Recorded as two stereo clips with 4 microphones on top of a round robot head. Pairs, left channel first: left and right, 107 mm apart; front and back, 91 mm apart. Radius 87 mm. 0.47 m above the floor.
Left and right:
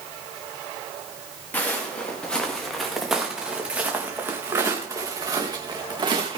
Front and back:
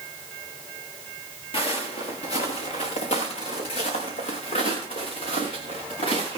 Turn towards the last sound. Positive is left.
turn(degrees=-45)